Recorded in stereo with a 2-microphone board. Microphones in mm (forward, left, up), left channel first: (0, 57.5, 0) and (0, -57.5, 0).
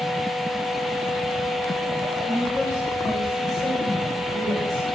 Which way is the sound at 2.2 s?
35° left (ahead or behind).